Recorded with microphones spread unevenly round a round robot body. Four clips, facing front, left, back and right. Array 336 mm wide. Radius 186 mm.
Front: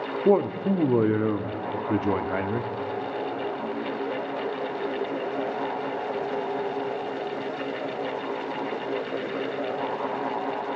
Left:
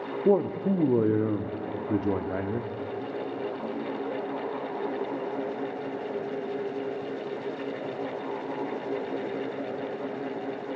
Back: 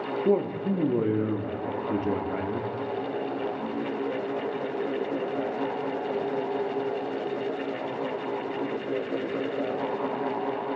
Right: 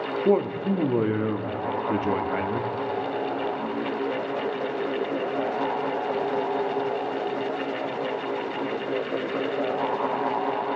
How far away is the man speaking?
About 0.8 m.